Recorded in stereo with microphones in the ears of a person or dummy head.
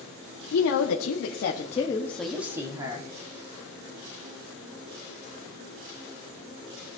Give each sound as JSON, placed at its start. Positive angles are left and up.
{"t": 0.5, "sound": "a woman speaking", "side_deg": 85, "distance_m": 2.0}